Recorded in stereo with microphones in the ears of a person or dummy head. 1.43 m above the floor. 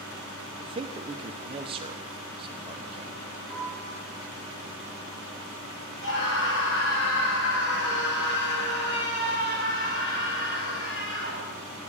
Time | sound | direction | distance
0.6 | a man speaking | 25° right (ahead or behind) | 1.2 m
3.5 | a piano | 5° left (ahead or behind) | 7.5 m
6.0 | a scream | 75° left (ahead or behind) | 6.5 m